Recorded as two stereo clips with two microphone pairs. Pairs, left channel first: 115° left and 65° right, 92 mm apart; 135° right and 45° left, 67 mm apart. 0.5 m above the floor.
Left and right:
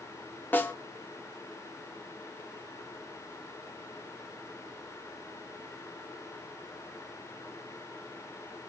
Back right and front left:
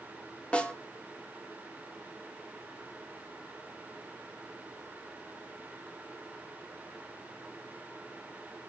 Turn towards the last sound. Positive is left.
turn(degrees=165)